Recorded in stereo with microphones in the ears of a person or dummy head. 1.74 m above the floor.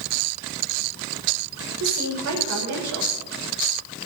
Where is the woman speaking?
80° right, 5.5 m.